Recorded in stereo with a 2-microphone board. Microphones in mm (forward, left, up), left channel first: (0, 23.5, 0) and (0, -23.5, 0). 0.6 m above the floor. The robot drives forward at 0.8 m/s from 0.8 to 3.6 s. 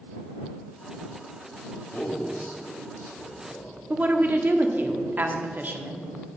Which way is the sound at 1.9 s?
45° left (ahead or behind).